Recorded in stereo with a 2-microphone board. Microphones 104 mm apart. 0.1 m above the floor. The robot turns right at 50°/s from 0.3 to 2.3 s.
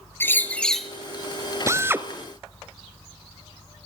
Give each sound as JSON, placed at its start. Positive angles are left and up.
{"t": 0.2, "sound": "a bird", "azimuth_deg": 150, "distance_m": 1.0}
{"t": 1.7, "sound": "a drill", "side_deg": -30, "distance_m": 0.9}